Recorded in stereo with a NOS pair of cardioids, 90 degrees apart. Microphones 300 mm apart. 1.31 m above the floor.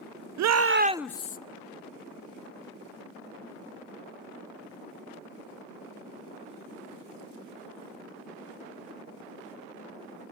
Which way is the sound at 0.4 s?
70° right.